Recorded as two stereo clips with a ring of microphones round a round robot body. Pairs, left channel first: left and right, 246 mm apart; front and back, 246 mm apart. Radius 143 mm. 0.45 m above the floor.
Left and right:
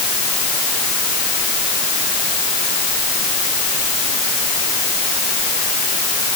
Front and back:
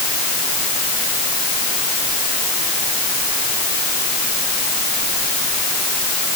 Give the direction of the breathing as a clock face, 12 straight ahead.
I don't hear breathing.